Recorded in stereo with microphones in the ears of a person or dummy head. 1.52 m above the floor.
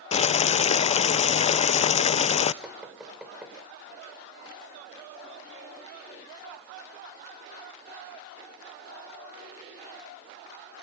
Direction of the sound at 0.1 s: 40° left (ahead or behind).